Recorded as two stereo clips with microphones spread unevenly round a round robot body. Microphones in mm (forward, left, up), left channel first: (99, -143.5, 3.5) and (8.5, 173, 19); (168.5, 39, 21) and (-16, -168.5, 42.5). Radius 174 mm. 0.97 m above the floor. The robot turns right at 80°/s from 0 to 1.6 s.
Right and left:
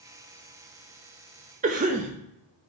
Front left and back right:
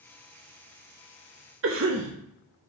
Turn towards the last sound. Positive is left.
turn(degrees=175)